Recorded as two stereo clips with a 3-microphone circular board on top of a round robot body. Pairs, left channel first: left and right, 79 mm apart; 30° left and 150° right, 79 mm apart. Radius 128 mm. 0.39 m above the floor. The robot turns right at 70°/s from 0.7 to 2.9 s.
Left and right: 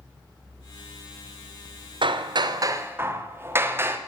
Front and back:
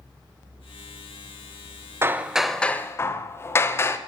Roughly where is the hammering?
Right.